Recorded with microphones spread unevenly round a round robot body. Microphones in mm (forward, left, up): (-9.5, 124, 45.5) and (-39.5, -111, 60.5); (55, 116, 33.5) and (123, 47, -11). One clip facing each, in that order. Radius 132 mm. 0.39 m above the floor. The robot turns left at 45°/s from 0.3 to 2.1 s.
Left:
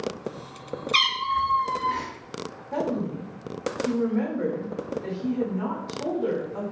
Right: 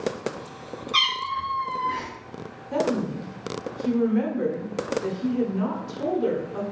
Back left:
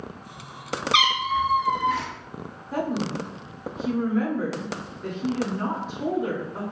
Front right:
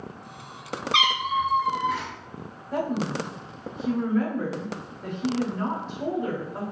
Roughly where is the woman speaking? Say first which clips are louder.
Right 3 dB, even; behind right.